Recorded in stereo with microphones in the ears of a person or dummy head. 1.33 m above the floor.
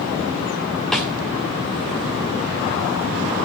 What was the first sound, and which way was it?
A snare drum, centre (ahead or behind).